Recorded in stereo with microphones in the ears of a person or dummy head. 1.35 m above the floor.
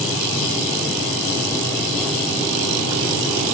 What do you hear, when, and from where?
Only background noise.